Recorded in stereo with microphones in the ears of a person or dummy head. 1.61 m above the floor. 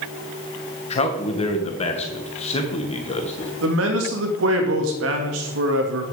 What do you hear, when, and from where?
0.9 s a man speaking: 35° left (ahead or behind), 1.8 m
3.6 s a man speaking: 75° right (ahead or behind), 2.5 m